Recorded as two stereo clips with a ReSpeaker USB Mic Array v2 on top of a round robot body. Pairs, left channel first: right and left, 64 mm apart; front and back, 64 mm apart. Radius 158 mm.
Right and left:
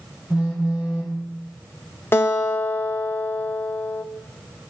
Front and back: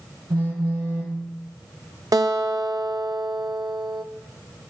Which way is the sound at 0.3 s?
160° left.